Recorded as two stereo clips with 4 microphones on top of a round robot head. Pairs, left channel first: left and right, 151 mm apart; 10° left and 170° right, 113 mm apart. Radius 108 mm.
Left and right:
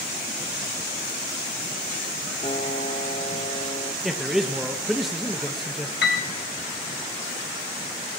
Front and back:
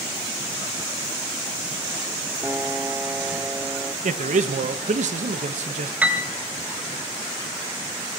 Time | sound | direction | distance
2.4 | a piano | 135° left | 1.0 m
4.0 | a man speaking | straight behind | 1.3 m
6.0 | a piano | 115° left | 2.5 m